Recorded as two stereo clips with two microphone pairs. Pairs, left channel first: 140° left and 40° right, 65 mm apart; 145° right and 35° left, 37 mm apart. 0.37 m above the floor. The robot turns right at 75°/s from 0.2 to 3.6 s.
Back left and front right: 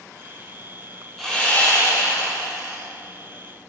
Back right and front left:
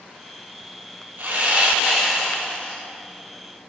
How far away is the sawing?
About 4 m.